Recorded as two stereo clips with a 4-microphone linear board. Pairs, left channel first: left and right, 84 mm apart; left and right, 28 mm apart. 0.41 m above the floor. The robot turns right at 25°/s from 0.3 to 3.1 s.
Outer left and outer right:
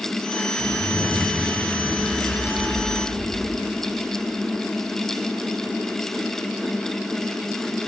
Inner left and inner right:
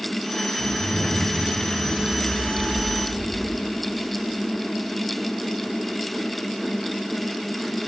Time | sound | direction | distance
0.6 | a zipper | 140° left | 8 m